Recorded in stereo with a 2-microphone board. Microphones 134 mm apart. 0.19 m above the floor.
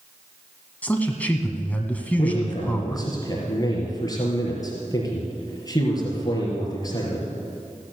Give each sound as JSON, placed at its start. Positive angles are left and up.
{"t": 0.8, "sound": "a man speaking", "side_deg": 10, "distance_m": 1.3}
{"t": 2.2, "sound": "a man speaking", "side_deg": 30, "distance_m": 4.0}